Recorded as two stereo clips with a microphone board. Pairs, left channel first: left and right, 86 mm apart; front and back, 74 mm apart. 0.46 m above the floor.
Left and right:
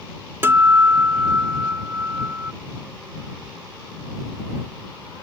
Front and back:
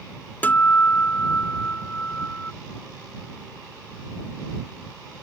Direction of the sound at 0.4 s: 50° right.